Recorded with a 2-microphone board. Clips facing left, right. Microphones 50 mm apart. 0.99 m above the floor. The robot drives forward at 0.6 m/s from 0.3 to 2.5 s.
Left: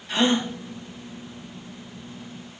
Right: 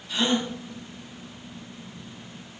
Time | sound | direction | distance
0.1 | a gasp | 60° left (ahead or behind) | 1.5 m